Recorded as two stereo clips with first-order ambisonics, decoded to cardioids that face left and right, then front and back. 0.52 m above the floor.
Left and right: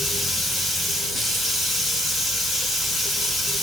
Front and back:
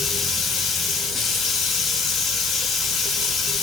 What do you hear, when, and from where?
0.0 s running water: 15° left, 0.7 m